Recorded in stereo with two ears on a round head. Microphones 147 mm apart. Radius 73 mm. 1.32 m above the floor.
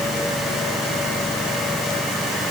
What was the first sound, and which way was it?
Only background noise.